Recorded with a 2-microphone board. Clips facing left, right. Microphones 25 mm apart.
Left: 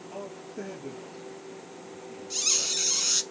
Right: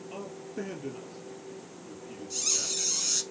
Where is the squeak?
30° left (ahead or behind), 0.5 m.